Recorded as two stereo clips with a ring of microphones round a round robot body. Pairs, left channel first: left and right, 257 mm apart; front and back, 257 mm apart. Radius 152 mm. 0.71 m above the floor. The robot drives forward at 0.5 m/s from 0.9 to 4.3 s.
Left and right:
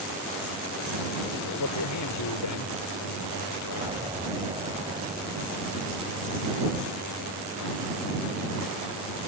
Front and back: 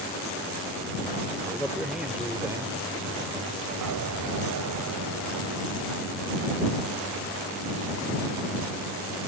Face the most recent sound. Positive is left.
turn(degrees=-165)